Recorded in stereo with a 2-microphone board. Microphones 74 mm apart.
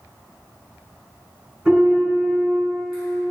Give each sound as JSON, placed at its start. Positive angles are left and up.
{"t": 1.6, "sound": "a piano", "side_deg": -10, "distance_m": 1.7}